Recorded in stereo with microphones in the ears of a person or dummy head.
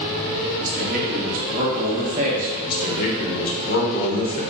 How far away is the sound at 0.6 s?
About 1.1 m.